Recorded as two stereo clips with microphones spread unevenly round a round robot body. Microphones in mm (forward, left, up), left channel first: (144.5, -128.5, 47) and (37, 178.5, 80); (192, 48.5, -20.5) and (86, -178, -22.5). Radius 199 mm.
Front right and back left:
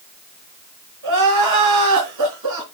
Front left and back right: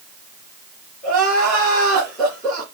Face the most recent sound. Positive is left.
turn(degrees=155)